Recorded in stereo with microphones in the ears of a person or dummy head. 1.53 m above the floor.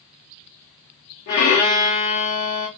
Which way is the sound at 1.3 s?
45° left (ahead or behind).